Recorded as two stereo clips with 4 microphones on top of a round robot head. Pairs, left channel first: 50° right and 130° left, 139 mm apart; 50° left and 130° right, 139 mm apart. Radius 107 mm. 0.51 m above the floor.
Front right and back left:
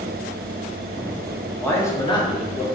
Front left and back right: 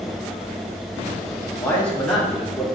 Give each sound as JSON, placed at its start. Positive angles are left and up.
{"t": 1.6, "sound": "a man speaking", "azimuth_deg": 5, "distance_m": 1.0}